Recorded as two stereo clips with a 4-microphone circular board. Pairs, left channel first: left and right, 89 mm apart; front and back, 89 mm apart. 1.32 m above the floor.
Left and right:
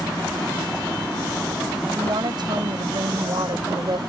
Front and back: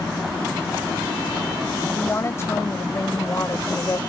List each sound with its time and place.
1.9 s a woman speaking: 60° right